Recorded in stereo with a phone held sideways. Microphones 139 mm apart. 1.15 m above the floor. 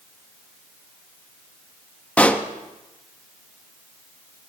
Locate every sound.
2.2 s a pop: 10° left (ahead or behind), 0.8 m